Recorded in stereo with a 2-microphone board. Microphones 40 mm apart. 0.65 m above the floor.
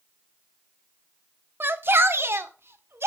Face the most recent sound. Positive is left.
turn(degrees=-70)  # may be behind; listen again after turning